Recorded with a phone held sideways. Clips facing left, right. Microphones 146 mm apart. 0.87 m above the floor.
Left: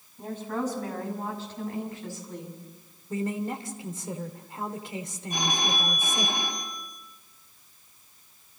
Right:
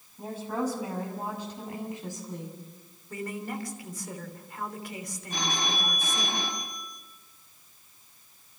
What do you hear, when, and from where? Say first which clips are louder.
0.2 s a woman speaking: even; 10° right (ahead or behind), 6.5 m; by 2.6 s 20° right (ahead or behind), 7.5 m
3.1 s a man speaking: left 5 dB; 25° left (ahead or behind), 2.5 m
5.3 s a phone ringing: left 2 dB; 15° left (ahead or behind), 5 m